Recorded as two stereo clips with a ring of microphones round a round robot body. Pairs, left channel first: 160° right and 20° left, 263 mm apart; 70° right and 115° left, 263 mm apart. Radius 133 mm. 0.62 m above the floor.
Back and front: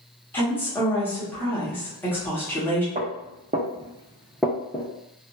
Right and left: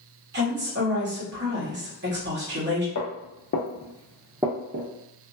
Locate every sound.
0.3 s a woman speaking: 125° left, 1.3 m
3.0 s footsteps: 40° right, 1.1 m; by 4.9 s 130° left, 0.7 m